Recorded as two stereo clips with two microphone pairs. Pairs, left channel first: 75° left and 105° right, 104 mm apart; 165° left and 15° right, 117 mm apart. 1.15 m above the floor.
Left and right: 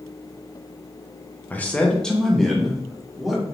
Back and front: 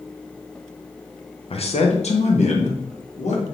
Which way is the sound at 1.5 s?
145° left.